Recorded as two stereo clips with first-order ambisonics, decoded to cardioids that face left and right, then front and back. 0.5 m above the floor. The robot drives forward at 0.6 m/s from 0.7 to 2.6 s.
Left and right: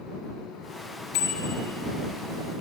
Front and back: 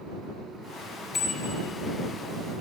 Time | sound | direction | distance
1.1 | a bicycle bell | 70° left | 6.5 m